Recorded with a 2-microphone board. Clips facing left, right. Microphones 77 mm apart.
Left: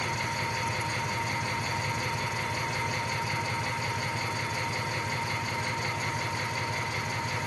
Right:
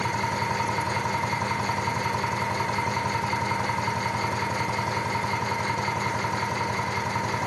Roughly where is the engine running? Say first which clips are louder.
Right 5 dB; right.